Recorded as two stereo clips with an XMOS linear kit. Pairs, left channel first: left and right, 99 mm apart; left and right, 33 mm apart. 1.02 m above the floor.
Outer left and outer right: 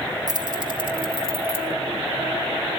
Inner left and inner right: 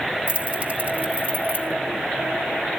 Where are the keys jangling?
40° right (ahead or behind), 0.9 m; by 1.7 s 65° right (ahead or behind), 1.8 m.